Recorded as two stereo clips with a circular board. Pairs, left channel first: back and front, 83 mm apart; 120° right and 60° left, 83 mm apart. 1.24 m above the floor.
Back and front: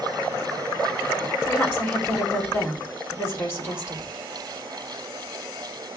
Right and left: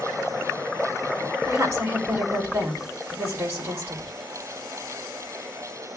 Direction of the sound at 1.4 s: 120° left.